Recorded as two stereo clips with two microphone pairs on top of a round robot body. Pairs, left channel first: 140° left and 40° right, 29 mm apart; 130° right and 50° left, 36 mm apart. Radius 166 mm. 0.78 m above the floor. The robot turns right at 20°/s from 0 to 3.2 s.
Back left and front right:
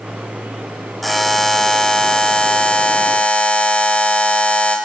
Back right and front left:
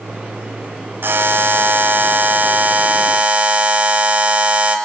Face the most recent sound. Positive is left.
turn(degrees=100)